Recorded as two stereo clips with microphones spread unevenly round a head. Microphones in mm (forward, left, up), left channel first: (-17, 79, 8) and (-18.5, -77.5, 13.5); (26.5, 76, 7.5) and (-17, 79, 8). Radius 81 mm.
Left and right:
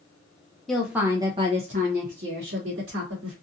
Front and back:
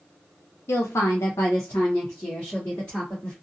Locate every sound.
0.7 s a woman speaking: straight ahead, 0.7 m; by 3.4 s 75° right, 1.4 m